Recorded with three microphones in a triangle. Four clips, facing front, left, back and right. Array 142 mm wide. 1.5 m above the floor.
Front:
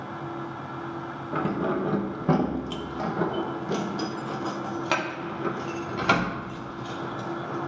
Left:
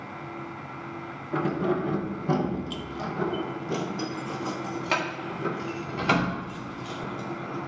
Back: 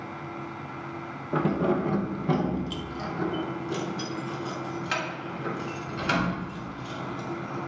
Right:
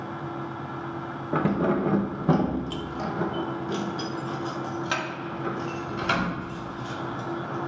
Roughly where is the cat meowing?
I don't hear a cat meowing.